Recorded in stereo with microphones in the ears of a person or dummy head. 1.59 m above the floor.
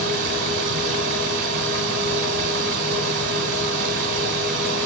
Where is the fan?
65° right (ahead or behind), 3 m.